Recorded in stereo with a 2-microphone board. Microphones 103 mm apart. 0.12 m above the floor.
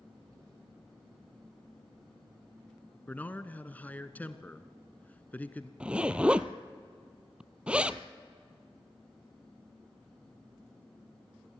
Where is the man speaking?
15° left (ahead or behind), 1.0 m.